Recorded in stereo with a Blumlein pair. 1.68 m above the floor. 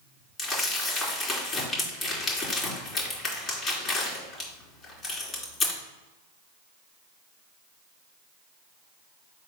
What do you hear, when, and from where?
0.4 s crumpling: 20° left, 3.5 m